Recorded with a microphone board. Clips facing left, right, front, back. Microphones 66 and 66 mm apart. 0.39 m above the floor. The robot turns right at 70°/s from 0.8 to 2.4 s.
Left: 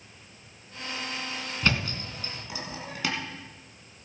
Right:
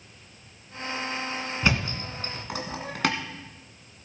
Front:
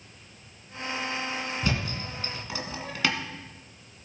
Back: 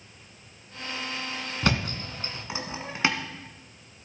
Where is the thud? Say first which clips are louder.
Right 1 dB, back 3 dB; 165° right, 1.7 m; by 3.2 s 115° right, 1.7 m.